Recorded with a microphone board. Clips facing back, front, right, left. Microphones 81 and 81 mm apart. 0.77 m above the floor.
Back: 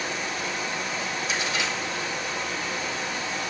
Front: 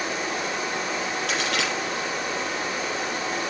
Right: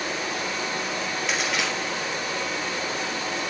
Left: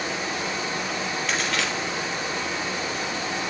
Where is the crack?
5° right, 3.5 m.